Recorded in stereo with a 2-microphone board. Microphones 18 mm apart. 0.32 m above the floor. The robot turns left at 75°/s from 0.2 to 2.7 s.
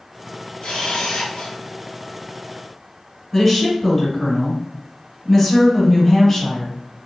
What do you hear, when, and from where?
0.6 s a camera shutter: 115° left, 1.3 m; by 1.6 s 45° left, 1.3 m
3.3 s a woman speaking: 10° left (ahead or behind), 1.2 m